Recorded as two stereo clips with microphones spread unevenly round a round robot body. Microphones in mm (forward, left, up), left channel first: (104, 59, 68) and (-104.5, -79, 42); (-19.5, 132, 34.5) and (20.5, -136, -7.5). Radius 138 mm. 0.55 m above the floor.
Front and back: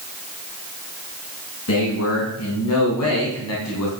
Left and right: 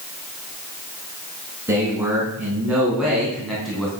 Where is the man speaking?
Straight ahead, 5.5 m; by 3.9 s 10° left, 4 m.